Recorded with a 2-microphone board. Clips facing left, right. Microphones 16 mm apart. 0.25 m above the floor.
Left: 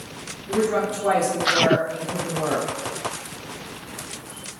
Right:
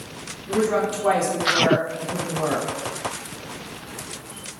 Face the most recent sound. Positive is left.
turn(degrees=-20)  # may be behind; listen again after turning